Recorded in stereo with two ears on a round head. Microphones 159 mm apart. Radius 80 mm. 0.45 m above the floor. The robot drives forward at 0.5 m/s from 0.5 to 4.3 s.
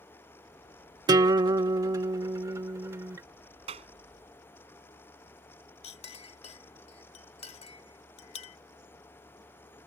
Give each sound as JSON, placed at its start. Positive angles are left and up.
{"t": 1.1, "sound": "a guitar", "side_deg": -25}
{"t": 3.7, "sound": "a clap", "side_deg": -35}
{"t": 5.8, "sound": "a clink", "side_deg": 35}